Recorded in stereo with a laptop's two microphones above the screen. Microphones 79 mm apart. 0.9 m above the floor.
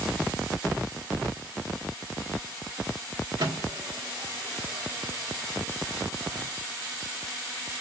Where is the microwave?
70° right (ahead or behind), 1.9 m.